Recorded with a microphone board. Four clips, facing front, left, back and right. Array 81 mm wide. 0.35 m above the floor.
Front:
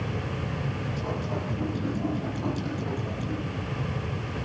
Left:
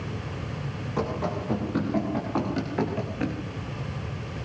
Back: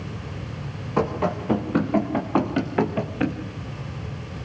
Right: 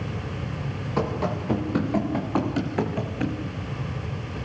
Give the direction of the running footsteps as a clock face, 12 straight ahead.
5 o'clock.